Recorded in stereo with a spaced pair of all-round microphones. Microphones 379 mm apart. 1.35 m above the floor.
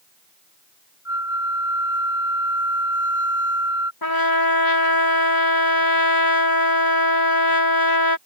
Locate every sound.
1.1 s a flute: 10° right (ahead or behind)
4.0 s a trumpet: 65° left (ahead or behind)